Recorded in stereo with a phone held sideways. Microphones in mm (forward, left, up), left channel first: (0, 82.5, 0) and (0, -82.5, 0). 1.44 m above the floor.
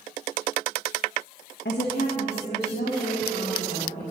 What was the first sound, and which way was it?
A woman speaking, 80° left.